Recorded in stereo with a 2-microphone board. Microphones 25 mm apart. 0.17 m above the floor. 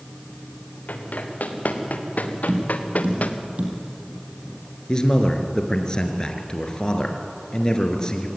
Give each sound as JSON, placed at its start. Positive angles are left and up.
{"t": 0.9, "sound": "running footsteps", "side_deg": 85, "distance_m": 4.0}
{"t": 2.5, "sound": "tapping", "side_deg": -65, "distance_m": 4.5}
{"t": 4.9, "sound": "a man speaking", "side_deg": 25, "distance_m": 2.5}